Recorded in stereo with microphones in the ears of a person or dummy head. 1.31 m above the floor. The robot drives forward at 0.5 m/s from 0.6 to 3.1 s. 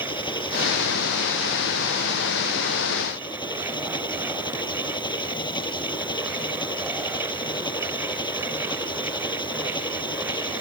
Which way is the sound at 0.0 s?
25° left (ahead or behind).